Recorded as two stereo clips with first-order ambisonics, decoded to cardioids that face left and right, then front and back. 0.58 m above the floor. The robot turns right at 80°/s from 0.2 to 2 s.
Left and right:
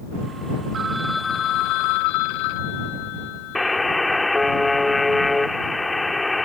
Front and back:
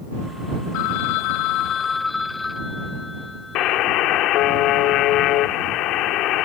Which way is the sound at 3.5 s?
10° left.